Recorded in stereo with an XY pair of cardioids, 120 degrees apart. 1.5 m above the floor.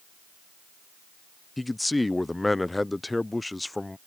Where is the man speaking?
10° left.